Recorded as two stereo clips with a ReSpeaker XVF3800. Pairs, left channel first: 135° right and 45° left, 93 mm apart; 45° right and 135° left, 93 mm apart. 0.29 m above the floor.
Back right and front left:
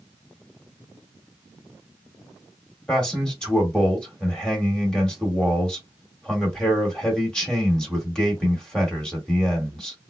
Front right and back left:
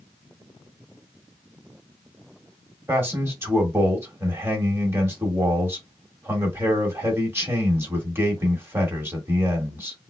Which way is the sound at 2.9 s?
155° left.